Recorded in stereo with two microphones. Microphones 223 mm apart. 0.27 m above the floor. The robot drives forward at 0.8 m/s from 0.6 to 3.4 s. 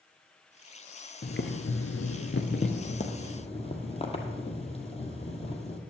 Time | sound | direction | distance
1.2 | boiling | 50° left (ahead or behind) | 0.8 m